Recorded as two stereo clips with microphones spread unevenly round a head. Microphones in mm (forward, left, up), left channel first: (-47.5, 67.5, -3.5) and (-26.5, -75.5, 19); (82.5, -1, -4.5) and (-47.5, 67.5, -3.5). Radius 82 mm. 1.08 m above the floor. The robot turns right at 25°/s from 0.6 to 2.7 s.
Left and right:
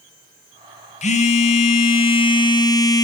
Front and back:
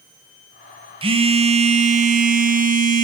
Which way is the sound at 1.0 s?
105° left.